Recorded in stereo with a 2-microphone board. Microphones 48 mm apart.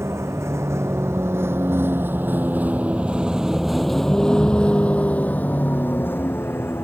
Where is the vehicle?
70° right (ahead or behind); by 6.8 s 50° left (ahead or behind).